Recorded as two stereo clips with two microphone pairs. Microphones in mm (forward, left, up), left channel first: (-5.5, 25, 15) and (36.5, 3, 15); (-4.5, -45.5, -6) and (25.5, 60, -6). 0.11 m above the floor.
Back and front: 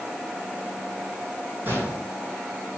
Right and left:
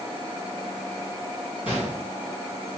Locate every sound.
1.6 s a gunshot: 70° right, 5.5 m